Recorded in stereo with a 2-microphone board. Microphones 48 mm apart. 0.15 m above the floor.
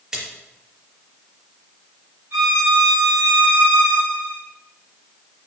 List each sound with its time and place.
0.1 s a splash: 20° right (ahead or behind), 3 m
2.3 s a violin: 55° right (ahead or behind), 4.5 m